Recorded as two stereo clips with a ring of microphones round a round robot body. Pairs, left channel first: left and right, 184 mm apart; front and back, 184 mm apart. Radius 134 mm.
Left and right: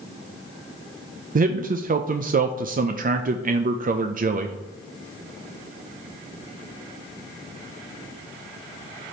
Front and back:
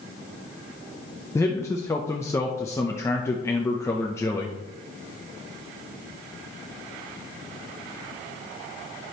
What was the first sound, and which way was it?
A man speaking, 70° right.